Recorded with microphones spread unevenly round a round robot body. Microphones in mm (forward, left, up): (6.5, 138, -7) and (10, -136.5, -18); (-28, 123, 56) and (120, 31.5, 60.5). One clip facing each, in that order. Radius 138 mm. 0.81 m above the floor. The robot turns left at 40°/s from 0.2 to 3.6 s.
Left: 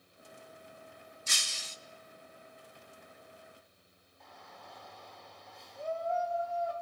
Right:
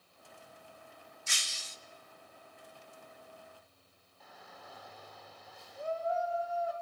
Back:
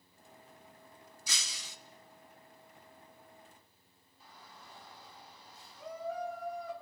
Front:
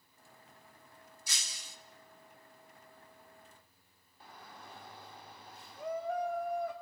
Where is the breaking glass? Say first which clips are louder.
Left 4 dB, back 4 dB; 145° left, 0.6 m; by 1.8 s 125° left, 0.6 m.